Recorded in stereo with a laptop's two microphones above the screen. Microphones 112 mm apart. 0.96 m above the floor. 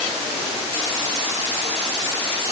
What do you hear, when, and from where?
Only background noise.